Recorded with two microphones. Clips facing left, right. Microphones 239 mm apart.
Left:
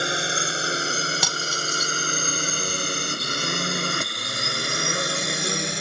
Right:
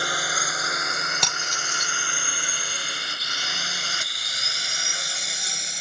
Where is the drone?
25° left (ahead or behind); by 5.8 s 70° left (ahead or behind).